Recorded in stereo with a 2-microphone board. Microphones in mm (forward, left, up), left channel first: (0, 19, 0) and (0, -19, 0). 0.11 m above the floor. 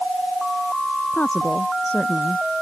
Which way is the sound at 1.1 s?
50° left (ahead or behind).